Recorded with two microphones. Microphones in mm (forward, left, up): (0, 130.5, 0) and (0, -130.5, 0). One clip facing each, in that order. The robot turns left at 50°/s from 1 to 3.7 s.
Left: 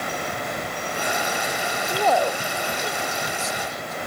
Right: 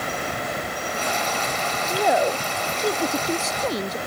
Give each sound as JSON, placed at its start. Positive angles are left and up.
{"t": 1.9, "sound": "a woman speaking", "azimuth_deg": -5}